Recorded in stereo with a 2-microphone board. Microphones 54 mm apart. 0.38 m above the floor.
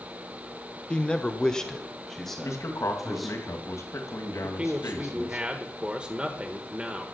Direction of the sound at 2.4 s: 70° left (ahead or behind).